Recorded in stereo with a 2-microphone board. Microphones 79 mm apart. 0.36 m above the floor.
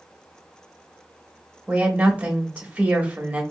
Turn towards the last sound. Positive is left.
turn(degrees=-20)  # may be behind; listen again after turning